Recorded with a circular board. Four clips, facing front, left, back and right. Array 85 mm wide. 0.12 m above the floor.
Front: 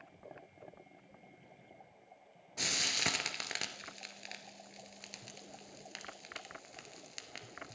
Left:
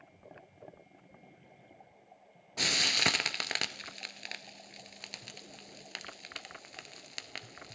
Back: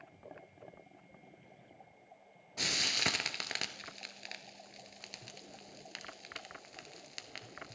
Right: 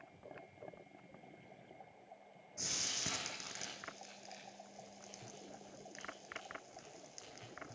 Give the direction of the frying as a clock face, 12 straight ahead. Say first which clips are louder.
Left 14 dB, back 1 dB; 9 o'clock.